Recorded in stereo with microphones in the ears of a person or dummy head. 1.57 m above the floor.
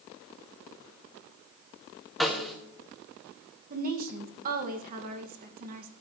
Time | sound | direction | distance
2.2 | a snare drum | 5° right (ahead or behind) | 1.9 m
3.7 | a woman speaking | 50° right (ahead or behind) | 2 m